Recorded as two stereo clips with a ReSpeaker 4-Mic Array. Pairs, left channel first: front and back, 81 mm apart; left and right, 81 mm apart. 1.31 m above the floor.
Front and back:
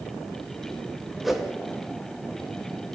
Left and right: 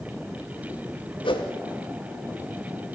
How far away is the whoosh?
About 2.5 m.